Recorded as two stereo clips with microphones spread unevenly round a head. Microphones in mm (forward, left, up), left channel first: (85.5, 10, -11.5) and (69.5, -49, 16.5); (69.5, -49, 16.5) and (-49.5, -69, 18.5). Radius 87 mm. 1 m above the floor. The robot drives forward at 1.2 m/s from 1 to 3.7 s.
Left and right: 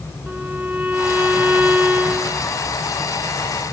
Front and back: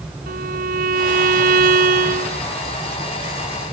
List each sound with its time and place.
0.3 s a violin: 175° left